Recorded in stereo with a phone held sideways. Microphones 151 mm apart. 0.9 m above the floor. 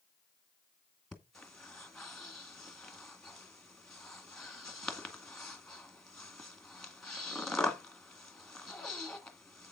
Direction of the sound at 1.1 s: 5° left (ahead or behind).